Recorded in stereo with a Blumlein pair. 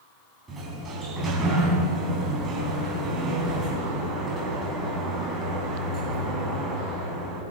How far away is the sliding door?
About 3.5 m.